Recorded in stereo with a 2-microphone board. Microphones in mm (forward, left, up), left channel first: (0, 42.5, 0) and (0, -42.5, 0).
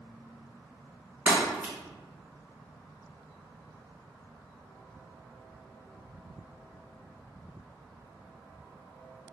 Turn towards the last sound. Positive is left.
turn(degrees=-15)  # may be behind; listen again after turning